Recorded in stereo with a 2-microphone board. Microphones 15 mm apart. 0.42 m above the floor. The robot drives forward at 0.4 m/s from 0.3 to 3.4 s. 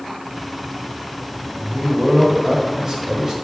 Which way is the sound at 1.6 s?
35° right (ahead or behind).